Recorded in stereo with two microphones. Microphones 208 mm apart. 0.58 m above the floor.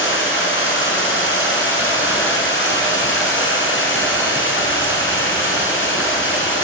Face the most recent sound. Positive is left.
turn(degrees=60)  # may be behind; listen again after turning